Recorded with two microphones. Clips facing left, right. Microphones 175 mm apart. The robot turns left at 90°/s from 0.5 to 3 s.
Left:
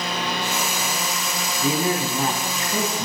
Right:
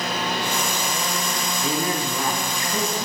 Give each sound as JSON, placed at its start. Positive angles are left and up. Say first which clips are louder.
{"t": 1.6, "sound": "a man speaking", "louder": "left 4 dB", "side_deg": 15, "distance_m": 1.1}